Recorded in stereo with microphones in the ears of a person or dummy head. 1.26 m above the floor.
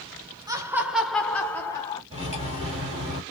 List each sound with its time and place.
0.5 s laughter: 15° right (ahead or behind), 0.7 m; by 2.0 s 25° left (ahead or behind), 1.2 m
2.1 s cutlery clinking: 35° right (ahead or behind), 1.8 m